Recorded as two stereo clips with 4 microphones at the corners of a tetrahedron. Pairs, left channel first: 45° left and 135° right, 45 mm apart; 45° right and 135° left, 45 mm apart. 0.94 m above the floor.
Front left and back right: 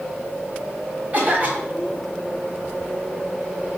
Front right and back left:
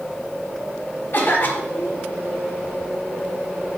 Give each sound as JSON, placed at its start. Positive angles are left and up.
{"t": 1.1, "sound": "a cough", "azimuth_deg": -80, "distance_m": 3.0}